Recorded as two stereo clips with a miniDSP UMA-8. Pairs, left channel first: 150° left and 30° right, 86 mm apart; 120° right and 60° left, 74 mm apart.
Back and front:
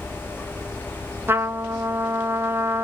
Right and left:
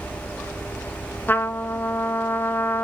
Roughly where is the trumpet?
Right.